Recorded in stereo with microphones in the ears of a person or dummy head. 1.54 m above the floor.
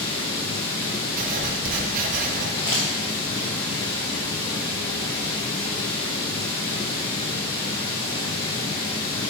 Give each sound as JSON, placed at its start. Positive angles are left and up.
{"t": 0.0, "sound": "running water", "side_deg": 25, "distance_m": 0.7}
{"t": 1.2, "sound": "writing", "side_deg": -50, "distance_m": 0.7}
{"t": 2.6, "sound": "crumpling", "side_deg": 20, "distance_m": 0.7}